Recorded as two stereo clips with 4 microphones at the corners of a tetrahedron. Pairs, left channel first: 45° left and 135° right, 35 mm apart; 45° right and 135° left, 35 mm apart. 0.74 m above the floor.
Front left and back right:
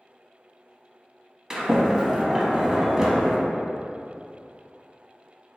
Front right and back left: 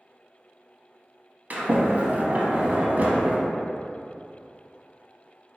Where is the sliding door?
155° left, 0.7 m.